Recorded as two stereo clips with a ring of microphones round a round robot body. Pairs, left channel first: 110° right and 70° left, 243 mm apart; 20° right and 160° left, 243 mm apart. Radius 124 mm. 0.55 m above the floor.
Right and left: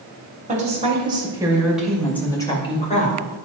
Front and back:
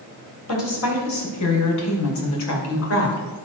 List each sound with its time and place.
0.5 s a woman speaking: 5° left, 3 m; by 3.3 s 60° right, 2.5 m